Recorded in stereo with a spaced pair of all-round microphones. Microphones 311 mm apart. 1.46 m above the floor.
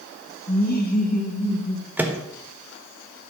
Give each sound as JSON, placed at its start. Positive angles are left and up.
{"t": 0.5, "sound": "laughter", "side_deg": 30, "distance_m": 2.5}
{"t": 2.0, "sound": "a microwave", "side_deg": -5, "distance_m": 1.4}